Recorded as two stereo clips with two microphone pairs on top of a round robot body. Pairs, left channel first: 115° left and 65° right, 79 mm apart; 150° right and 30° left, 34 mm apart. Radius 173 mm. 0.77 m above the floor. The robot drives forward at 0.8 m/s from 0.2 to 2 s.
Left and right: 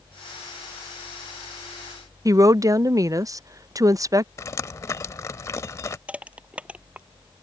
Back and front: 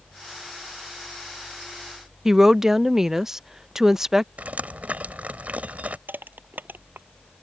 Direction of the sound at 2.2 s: 45° right.